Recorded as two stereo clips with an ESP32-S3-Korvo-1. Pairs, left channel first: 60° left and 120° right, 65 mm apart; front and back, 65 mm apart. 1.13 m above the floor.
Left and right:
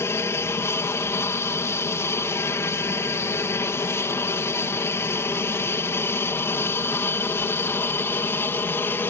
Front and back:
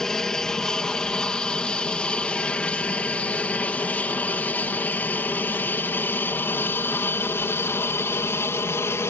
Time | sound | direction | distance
0.0 | an aircraft | 80° left | ?